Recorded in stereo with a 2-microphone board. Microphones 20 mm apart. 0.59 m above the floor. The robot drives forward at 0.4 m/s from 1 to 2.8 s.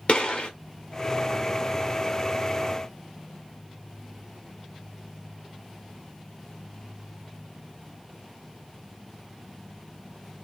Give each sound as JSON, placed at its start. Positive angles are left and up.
{"t": 0.1, "sound": "a gunshot", "side_deg": 65, "distance_m": 1.8}